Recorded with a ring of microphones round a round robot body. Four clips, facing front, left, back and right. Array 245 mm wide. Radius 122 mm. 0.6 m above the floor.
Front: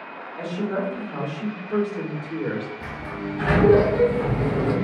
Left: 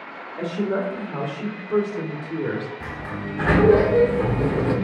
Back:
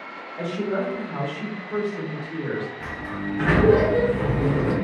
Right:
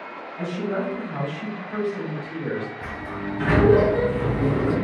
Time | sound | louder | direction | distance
0.4 | a woman speaking | left 2 dB, back 1 dB | 105° left | 2.0 m
2.8 | a sliding door | even, even | 100° left | 1.0 m